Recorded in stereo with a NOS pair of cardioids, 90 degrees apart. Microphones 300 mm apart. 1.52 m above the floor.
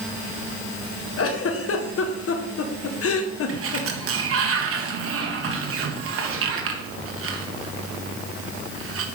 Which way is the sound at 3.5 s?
50° right.